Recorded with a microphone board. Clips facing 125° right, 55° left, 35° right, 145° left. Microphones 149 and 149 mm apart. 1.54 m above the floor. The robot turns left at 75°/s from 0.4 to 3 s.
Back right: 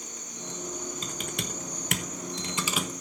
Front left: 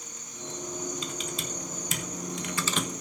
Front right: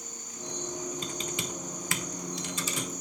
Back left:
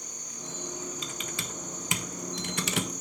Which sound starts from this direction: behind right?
An insect, at 0.0 s.